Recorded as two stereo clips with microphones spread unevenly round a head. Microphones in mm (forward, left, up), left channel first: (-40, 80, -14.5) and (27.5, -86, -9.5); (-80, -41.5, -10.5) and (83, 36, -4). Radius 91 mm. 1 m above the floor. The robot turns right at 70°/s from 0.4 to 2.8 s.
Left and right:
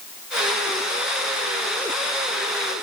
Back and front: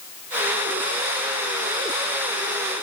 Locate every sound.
Only background noise.